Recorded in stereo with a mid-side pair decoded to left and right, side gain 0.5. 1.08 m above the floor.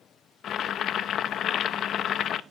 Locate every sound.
0.4 s boiling: 60° left, 0.7 m